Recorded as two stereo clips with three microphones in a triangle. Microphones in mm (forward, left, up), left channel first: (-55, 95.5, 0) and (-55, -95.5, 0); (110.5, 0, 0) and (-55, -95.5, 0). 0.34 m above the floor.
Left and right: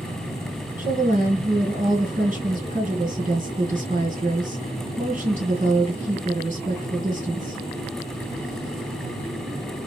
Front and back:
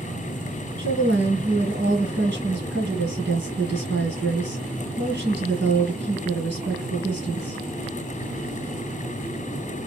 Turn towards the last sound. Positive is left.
turn(degrees=-140)